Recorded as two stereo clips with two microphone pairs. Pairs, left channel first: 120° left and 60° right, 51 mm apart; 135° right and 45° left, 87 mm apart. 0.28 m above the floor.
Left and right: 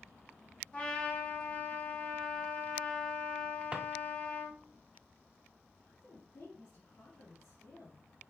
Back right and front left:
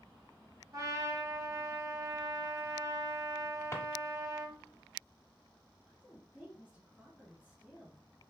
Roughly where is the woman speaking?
Behind left.